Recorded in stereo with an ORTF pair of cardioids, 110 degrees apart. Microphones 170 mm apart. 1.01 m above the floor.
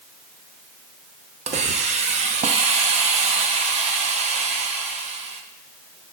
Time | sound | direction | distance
1.5 | a hiss | 40° right | 0.8 m